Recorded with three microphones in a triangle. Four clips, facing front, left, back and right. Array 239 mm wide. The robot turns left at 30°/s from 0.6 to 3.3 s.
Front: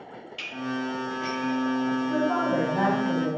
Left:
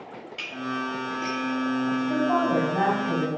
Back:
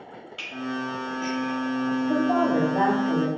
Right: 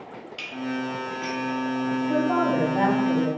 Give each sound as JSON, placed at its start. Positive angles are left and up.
{"t": 0.4, "sound": "dishes clattering", "azimuth_deg": -125, "distance_m": 5.0}
{"t": 2.1, "sound": "a woman speaking", "azimuth_deg": -170, "distance_m": 4.0}